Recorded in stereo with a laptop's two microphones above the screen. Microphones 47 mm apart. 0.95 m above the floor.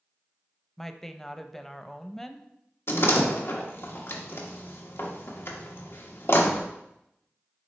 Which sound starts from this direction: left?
A door slam, at 2.9 s.